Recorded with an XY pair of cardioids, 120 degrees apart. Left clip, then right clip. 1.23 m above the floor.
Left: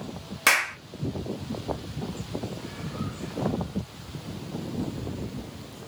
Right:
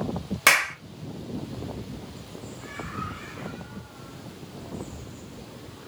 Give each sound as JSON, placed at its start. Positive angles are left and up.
{"t": 0.5, "sound": "a clap", "azimuth_deg": -20, "distance_m": 0.7}